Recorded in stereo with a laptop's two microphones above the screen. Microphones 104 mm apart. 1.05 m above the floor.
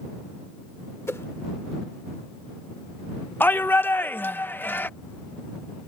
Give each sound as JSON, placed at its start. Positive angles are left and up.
{"t": 1.1, "sound": "a whoosh", "side_deg": 25}
{"t": 3.4, "sound": "a shout", "side_deg": 20}